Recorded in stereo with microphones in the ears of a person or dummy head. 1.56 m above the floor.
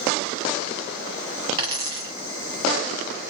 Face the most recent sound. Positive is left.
turn(degrees=-35)  # may be behind; listen again after turning